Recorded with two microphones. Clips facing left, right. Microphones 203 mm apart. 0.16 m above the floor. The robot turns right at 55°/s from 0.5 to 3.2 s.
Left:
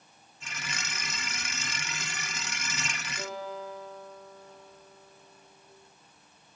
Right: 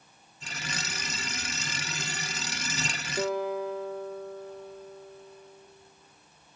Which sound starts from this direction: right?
A guitar, at 3.2 s.